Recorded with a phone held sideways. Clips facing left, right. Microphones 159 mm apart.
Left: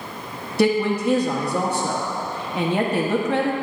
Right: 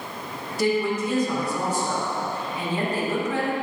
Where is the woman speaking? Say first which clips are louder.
Left 4 dB; 70° left (ahead or behind), 1.2 m.